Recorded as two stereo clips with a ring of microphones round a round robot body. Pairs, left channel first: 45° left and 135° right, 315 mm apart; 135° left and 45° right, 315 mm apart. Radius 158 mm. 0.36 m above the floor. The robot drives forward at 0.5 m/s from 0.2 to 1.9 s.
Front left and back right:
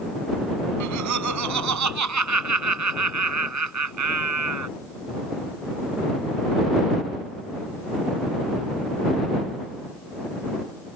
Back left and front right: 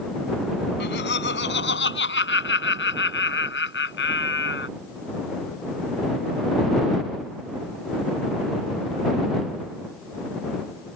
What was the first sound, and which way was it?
Laughter, 170° right.